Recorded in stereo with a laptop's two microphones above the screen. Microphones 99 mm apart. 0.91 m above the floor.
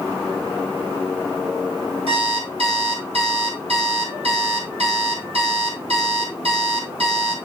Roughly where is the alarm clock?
Right.